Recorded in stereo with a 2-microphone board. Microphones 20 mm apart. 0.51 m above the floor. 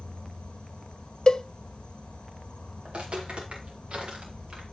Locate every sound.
0.0 s an insect: 55° left (ahead or behind), 0.9 m
1.3 s a cowbell: 40° left (ahead or behind), 0.5 m
2.9 s footsteps: 70° right (ahead or behind), 4.5 m; by 4.6 s 60° right (ahead or behind), 5 m